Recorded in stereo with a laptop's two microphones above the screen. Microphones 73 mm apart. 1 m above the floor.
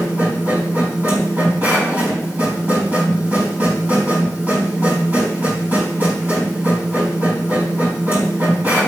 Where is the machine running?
25° right (ahead or behind), 4 m.